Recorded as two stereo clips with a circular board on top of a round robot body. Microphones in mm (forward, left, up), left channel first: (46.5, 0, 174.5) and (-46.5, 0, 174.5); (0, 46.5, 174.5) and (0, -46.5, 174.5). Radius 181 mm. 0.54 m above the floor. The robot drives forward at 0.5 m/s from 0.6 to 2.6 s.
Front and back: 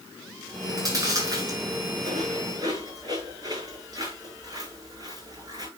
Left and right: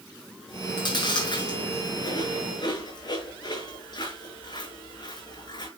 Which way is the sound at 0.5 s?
130° left.